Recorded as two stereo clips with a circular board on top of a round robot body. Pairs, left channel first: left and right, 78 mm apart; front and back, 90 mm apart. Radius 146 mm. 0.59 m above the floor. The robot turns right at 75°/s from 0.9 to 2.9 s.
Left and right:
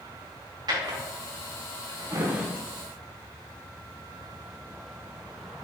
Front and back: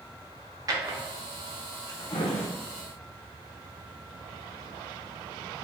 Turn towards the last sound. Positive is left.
turn(degrees=20)